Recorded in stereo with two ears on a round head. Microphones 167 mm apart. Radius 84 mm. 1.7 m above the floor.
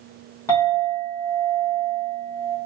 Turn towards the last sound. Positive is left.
turn(degrees=15)  # may be behind; listen again after turning